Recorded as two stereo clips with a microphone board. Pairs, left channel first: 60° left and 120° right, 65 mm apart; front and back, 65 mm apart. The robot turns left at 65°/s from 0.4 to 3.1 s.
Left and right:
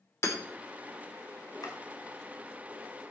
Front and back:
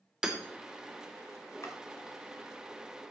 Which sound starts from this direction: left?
Hammering, at 0.2 s.